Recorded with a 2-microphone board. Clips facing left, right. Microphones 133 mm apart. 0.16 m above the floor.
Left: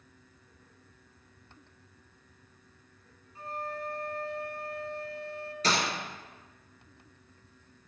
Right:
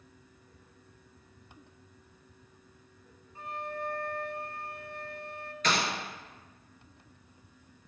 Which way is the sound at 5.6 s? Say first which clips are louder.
Even; 35° left (ahead or behind).